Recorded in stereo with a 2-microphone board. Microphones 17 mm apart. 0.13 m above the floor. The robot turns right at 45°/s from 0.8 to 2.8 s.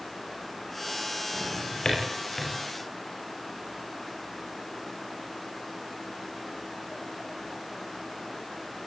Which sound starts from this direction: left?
A drawer, at 1.3 s.